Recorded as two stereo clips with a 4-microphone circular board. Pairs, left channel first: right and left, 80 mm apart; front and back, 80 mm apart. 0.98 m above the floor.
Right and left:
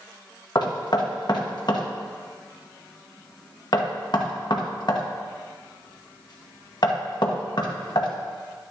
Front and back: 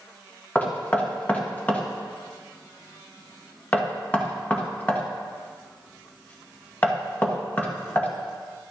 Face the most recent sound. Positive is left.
turn(degrees=-70)